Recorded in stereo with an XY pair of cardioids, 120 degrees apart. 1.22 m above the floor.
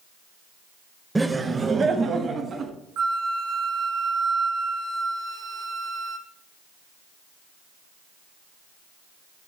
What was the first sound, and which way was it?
Laughter, 10° right.